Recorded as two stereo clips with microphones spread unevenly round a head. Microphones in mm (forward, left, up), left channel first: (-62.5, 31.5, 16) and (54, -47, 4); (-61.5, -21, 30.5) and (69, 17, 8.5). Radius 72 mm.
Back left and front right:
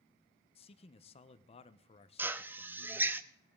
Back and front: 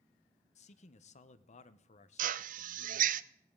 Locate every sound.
0.6 s a man speaking: 175° left, 0.8 m
2.2 s a drill: 45° left, 0.6 m